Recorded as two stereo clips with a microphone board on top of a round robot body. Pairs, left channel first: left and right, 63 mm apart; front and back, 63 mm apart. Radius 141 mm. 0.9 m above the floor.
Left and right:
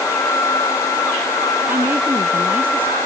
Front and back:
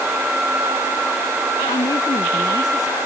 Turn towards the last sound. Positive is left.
turn(degrees=-30)